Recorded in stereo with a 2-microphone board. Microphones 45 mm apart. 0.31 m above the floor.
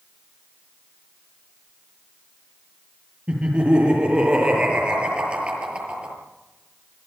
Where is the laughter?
25° right (ahead or behind), 7.5 m.